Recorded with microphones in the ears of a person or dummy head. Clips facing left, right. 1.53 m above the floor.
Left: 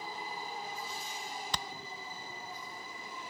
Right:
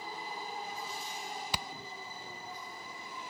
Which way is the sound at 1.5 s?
10° right (ahead or behind).